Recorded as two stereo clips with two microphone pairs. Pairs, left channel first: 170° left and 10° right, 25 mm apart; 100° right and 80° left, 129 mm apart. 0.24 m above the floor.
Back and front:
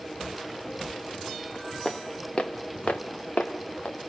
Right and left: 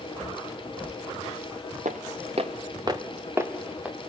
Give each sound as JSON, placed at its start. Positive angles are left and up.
{"t": 1.9, "sound": "footsteps", "azimuth_deg": 95, "distance_m": 1.7}